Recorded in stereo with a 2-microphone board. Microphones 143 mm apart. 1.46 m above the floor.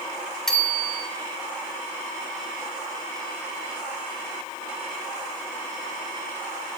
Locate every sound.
0.5 s a bicycle bell: 5° left (ahead or behind), 4 m